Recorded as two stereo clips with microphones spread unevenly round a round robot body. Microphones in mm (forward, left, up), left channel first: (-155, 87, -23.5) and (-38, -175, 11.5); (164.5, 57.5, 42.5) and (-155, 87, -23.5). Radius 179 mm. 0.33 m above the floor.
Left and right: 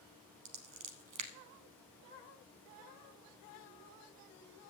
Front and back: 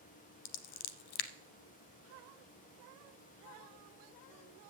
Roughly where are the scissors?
Ahead.